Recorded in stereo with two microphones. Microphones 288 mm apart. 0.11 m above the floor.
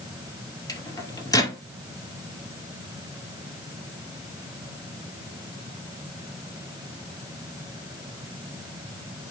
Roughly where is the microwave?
Centre.